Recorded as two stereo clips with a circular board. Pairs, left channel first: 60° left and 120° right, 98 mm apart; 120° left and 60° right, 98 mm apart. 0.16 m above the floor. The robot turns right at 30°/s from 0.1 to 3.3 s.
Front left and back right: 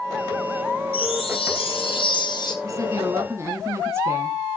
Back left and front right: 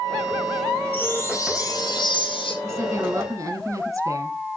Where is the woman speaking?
100° right, 1.5 m; by 4.4 s 80° right, 1.5 m.